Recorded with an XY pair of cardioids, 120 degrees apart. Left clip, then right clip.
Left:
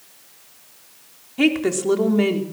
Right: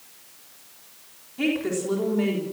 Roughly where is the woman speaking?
Ahead left.